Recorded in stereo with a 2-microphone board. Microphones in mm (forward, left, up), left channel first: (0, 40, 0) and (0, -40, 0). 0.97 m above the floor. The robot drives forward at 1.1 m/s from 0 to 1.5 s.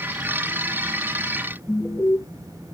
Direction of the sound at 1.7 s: 20° left (ahead or behind).